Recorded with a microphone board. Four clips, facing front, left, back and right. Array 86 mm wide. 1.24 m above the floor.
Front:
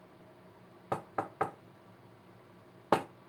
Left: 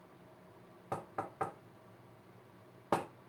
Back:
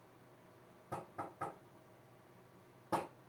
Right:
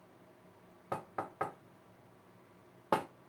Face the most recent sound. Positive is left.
turn(degrees=-5)